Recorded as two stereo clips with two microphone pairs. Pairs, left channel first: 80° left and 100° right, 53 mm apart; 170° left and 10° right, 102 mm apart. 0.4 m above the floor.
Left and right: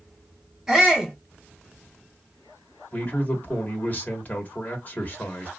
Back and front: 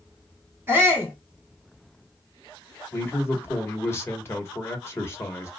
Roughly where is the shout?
Ahead right.